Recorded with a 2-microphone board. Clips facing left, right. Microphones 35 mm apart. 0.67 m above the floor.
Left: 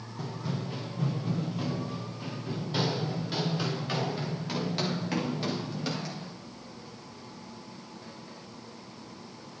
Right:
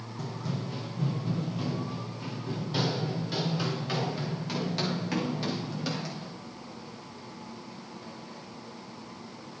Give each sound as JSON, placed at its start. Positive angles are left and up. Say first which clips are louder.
{"t": 0.2, "sound": "running footsteps", "louder": "even", "side_deg": 20, "distance_m": 1.8}